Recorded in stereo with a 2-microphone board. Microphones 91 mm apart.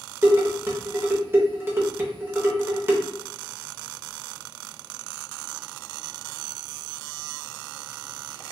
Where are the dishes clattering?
25° right (ahead or behind), 0.7 m.